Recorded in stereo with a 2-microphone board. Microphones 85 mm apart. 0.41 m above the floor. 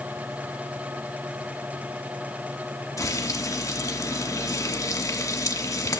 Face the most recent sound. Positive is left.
turn(degrees=40)  # may be behind; listen again after turning